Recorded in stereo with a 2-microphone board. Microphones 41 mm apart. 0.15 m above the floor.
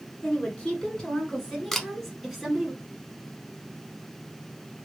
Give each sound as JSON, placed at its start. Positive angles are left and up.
{"t": 0.2, "sound": "a woman speaking", "side_deg": 30, "distance_m": 2.5}
{"t": 1.7, "sound": "a camera shutter", "side_deg": 10, "distance_m": 0.7}